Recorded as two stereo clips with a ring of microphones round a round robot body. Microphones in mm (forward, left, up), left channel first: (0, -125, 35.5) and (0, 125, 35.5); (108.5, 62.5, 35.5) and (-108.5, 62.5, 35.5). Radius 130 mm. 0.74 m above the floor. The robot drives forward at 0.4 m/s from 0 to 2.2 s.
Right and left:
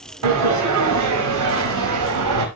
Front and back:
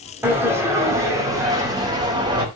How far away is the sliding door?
About 4.5 m.